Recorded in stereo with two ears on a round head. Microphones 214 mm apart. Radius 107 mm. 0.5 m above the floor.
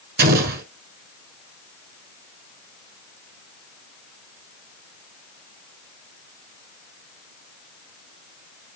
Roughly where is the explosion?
Right.